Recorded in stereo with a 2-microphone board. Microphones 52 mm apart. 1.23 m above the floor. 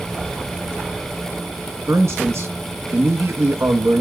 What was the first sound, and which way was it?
A man speaking, 65° right (ahead or behind).